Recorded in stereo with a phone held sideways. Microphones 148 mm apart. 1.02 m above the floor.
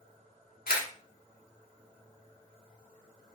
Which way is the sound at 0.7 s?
80° left.